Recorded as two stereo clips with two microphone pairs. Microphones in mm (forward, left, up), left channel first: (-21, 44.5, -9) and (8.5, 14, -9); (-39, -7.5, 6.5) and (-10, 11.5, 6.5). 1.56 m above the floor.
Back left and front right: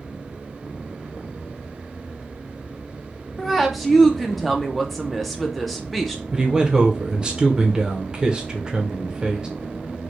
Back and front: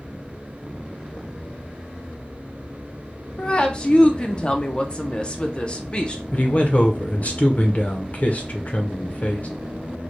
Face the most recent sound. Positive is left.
turn(degrees=-115)